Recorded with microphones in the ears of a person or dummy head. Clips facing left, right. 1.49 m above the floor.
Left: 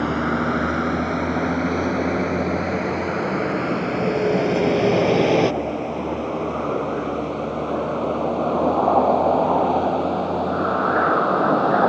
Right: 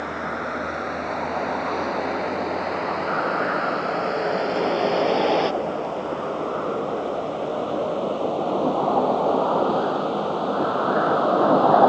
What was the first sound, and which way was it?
A vehicle, 50° left (ahead or behind).